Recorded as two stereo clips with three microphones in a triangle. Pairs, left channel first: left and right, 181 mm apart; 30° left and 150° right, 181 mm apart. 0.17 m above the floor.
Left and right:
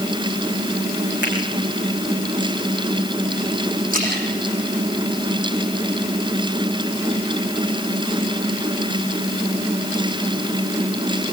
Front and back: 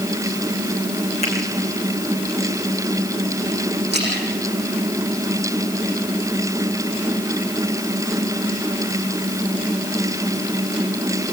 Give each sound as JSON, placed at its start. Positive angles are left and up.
{"t": 1.2, "sound": "a finger snap", "azimuth_deg": -95, "distance_m": 9.0}
{"t": 3.9, "sound": "a splash", "azimuth_deg": -130, "distance_m": 9.5}